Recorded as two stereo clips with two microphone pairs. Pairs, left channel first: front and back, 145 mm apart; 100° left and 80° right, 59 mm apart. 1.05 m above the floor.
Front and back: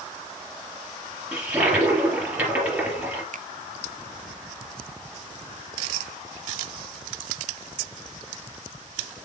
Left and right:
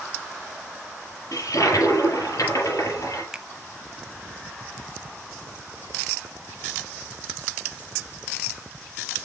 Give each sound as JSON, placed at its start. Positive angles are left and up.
{"t": 1.3, "sound": "a toilet flushing", "azimuth_deg": 105, "distance_m": 4.5}
{"t": 3.3, "sound": "a finger snap", "azimuth_deg": -155, "distance_m": 0.5}